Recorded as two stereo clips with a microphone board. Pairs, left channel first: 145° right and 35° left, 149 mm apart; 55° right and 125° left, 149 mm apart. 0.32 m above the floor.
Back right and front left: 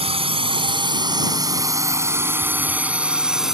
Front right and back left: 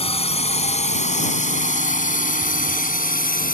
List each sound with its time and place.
0.0 s a drone: 10° right; by 3.5 s 55° right